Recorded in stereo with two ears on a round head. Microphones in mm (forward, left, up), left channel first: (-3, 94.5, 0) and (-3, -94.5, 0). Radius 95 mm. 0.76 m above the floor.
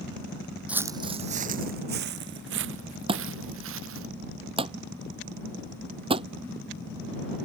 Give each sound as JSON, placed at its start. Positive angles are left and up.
{"t": 0.7, "sound": "footsteps", "side_deg": -5}
{"t": 3.1, "sound": "a thud", "side_deg": -25}